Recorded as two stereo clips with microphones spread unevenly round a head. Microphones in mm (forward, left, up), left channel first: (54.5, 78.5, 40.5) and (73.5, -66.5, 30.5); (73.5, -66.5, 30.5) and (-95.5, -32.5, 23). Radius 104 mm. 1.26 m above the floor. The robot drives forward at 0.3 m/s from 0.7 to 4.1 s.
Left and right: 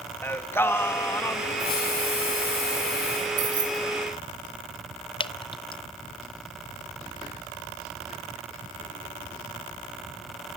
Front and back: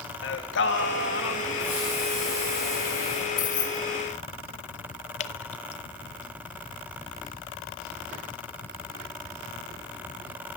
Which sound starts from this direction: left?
A hiss, at 1.6 s.